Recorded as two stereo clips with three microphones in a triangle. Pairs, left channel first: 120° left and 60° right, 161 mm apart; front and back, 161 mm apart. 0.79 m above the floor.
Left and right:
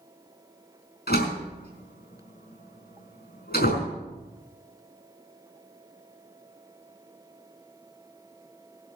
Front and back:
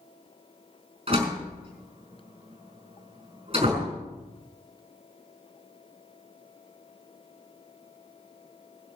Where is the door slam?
130° left, 5 m.